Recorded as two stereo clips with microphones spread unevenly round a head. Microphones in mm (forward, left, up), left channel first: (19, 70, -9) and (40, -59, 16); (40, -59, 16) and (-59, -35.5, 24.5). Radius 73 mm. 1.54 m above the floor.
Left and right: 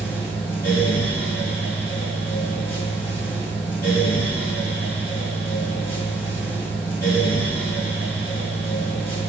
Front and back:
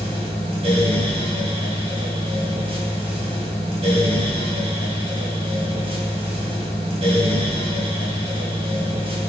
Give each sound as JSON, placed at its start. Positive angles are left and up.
{"t": 0.0, "sound": "a fan", "azimuth_deg": 165, "distance_m": 1.3}